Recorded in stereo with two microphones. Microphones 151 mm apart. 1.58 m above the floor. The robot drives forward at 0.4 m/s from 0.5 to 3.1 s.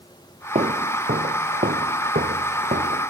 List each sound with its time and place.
0.6 s footsteps: 55° right (ahead or behind); by 3.1 s 70° right (ahead or behind)